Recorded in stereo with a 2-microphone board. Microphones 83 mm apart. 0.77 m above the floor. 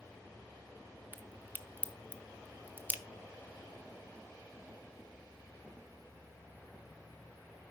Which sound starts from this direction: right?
A crack, at 1.1 s.